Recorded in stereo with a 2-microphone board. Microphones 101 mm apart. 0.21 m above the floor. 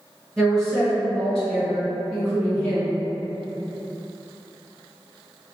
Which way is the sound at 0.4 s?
5° left (ahead or behind).